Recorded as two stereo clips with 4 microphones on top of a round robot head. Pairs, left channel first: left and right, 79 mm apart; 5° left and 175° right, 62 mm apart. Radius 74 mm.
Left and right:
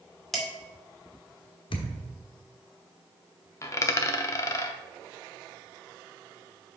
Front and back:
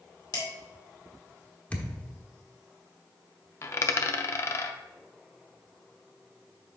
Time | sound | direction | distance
0.3 | dishes clattering | straight ahead | 2 m
1.7 | a thud | 75° left | 1.2 m
3.6 | a dropped coin | 45° left | 0.5 m